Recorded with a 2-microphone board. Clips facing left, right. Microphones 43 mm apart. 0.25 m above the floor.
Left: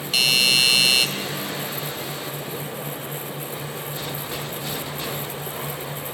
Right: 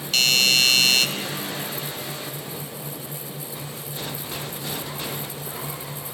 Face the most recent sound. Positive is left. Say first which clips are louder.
# left 1 dB
turn(degrees=10)  # may be behind; listen again after turning